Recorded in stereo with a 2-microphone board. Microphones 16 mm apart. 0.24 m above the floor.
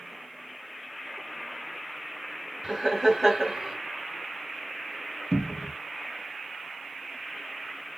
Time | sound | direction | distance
2.6 | laughter | 20° right (ahead or behind) | 1.5 m
5.3 | a cupboard door | 50° left (ahead or behind) | 0.5 m